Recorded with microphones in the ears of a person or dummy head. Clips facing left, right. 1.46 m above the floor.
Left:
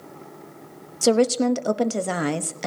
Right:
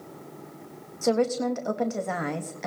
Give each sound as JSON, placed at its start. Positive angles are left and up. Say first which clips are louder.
{"t": 1.0, "sound": "a woman speaking", "louder": "left 5 dB", "side_deg": 40, "distance_m": 0.7}